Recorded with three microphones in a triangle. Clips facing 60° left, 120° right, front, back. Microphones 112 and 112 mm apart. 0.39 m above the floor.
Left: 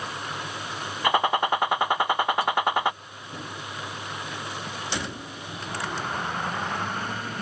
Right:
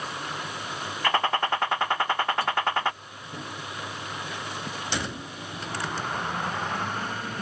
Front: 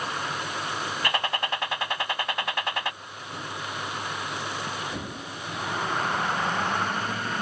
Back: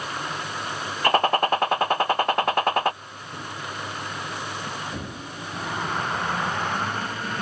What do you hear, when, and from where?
1.0 s a gunshot: 135° left